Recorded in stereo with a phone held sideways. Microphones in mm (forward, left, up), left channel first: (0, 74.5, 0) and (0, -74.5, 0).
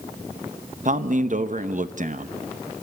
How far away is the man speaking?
About 0.9 m.